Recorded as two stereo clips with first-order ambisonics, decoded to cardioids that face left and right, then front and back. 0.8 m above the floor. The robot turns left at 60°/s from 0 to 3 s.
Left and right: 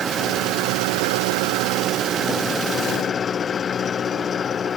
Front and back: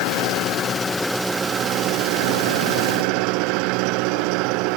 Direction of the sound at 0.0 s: 20° right.